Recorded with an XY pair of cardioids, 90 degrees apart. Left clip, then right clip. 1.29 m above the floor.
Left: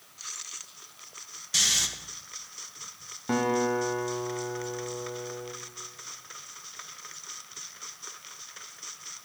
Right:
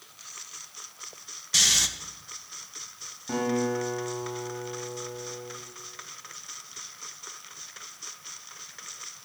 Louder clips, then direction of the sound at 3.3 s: Left 2 dB; 60° left.